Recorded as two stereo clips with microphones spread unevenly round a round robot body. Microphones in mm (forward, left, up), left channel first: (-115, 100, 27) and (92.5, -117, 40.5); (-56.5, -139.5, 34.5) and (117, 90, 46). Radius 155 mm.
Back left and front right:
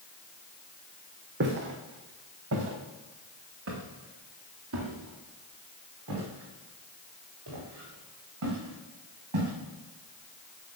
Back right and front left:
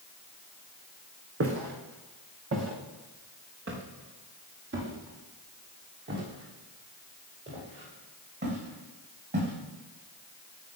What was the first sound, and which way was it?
Footsteps, 10° left.